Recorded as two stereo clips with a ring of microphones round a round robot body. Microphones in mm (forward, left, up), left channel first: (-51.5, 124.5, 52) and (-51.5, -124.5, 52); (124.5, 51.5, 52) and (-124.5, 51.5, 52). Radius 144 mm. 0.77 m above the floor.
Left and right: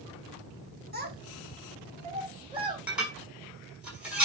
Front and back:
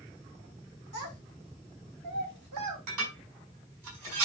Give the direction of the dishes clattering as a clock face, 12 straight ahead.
6 o'clock.